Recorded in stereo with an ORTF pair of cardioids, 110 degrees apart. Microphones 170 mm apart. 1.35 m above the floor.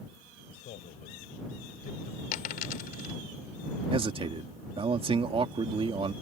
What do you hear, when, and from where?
0.5 s a man speaking: 55° left
2.3 s a dropped coin: 65° left
3.9 s a man speaking: 35° right